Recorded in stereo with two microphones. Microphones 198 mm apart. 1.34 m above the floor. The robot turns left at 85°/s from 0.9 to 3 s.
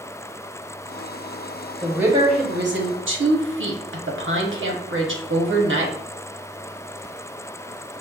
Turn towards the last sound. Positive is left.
turn(degrees=-95)